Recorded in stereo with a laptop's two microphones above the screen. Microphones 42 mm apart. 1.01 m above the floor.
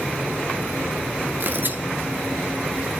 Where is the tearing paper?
50° right (ahead or behind), 1.6 m.